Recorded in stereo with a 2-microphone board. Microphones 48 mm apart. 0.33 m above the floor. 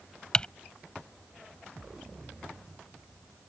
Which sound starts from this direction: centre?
Typing on a keyboard, at 0.3 s.